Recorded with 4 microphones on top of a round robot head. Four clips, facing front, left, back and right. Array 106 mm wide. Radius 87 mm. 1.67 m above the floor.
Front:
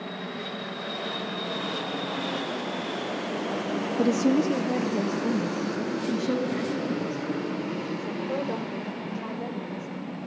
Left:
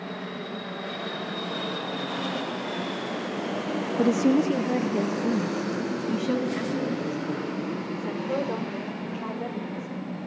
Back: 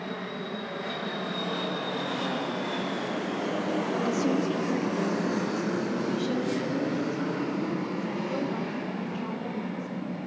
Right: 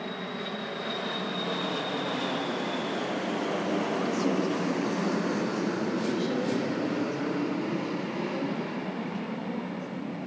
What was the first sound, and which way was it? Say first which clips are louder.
A woman speaking: left 6 dB, front 7 dB; 55° left.